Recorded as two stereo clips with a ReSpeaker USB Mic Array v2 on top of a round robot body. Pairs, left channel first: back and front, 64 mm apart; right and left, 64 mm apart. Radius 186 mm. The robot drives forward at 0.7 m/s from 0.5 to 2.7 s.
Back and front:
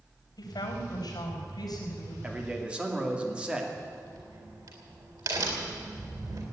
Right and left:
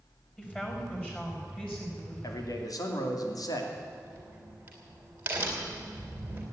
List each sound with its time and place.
0.4 s a woman speaking: 160° right, 4 m; by 2.1 s 165° right, 5 m
2.2 s a man speaking: 65° right, 2.5 m; by 3.7 s 75° right, 2.5 m
3.8 s a crack: 25° left, 3.5 m